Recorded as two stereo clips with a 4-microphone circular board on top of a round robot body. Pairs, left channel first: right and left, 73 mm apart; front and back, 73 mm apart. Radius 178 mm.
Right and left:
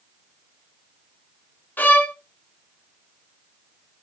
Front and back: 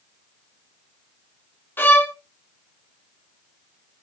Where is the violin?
40° right, 1.3 m.